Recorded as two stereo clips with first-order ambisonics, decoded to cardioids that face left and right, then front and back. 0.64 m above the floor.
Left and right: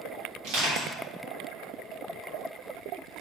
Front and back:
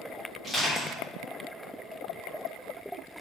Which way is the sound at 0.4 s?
80° right.